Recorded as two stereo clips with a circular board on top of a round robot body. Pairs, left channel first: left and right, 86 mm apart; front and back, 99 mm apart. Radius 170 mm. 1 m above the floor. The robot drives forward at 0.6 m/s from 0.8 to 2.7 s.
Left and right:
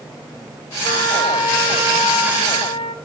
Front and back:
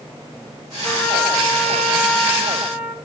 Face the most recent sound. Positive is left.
turn(degrees=100)